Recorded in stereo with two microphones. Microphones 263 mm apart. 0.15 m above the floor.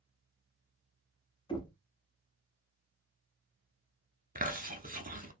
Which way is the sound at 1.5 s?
20° left (ahead or behind).